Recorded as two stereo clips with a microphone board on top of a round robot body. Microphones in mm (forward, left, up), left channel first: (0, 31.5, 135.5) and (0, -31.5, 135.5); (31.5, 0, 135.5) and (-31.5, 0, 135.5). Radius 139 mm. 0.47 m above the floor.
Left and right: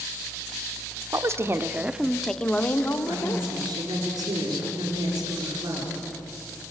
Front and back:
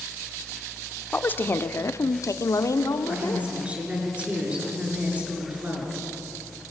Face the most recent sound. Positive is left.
turn(degrees=-110)